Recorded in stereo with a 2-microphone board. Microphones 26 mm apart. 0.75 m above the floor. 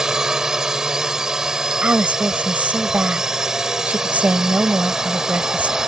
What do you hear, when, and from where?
0.0 s a drone: 20° right (ahead or behind)
1.8 s a woman speaking: 80° right